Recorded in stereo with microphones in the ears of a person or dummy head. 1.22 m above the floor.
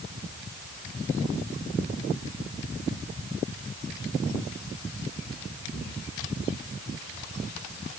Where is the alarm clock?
No alarm clock in this recording.